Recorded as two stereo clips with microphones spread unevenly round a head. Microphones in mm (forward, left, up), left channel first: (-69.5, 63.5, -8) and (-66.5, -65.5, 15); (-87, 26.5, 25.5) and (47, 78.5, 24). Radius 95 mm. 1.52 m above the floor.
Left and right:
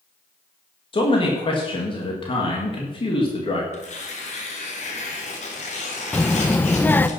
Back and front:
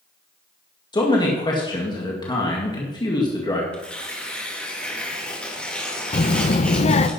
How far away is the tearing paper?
About 3 m.